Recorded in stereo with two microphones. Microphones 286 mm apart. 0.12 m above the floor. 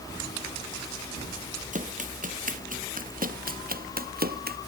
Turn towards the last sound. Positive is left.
turn(degrees=-35)  # may be behind; listen again after turning